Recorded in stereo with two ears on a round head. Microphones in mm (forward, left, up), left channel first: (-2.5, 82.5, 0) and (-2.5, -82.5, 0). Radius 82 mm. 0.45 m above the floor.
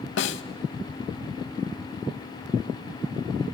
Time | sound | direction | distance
0.2 | a snare drum | 70° left (ahead or behind) | 0.6 m